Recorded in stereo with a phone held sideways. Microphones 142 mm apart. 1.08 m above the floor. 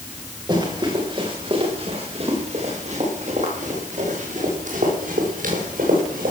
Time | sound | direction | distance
0.5 | running footsteps | 30° right (ahead or behind) | 7 m